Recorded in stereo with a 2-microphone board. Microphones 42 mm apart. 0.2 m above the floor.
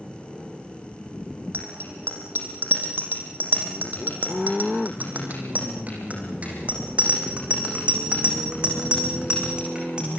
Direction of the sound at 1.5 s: 65° right (ahead or behind).